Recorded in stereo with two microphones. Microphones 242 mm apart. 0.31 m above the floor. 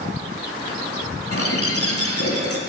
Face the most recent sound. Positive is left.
turn(degrees=70)  # may be behind; listen again after turning